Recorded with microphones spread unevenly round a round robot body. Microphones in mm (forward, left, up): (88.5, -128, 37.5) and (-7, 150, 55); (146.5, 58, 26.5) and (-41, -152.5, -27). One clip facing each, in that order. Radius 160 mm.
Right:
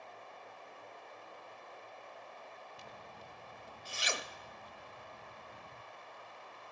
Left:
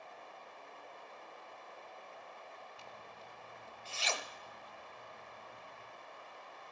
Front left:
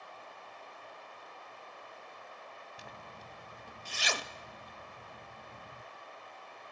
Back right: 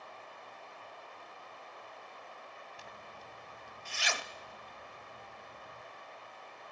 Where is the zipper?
5° left, 0.6 m.